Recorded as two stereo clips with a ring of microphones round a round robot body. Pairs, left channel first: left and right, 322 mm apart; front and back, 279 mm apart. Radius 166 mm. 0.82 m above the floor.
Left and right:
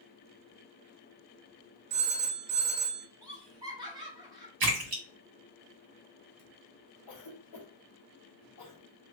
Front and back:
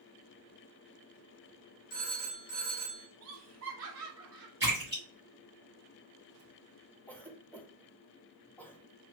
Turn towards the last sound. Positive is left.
turn(degrees=85)